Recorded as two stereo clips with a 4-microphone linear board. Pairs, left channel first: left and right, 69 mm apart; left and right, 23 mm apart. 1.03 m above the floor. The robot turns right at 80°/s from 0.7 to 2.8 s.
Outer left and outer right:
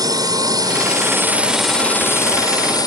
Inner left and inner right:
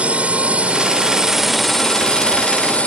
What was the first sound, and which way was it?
A drone, 75° right.